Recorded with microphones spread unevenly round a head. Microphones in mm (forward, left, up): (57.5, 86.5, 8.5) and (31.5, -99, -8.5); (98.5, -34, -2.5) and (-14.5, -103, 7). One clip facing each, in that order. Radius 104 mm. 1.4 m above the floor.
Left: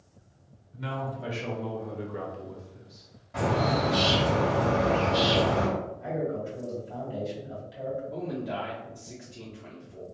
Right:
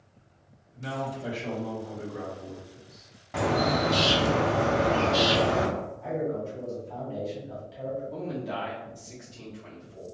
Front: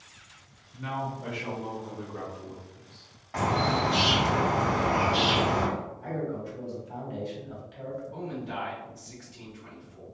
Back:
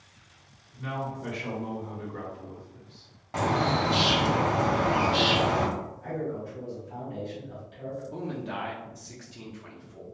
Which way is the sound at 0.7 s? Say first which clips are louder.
Right 1 dB, even; 90° left.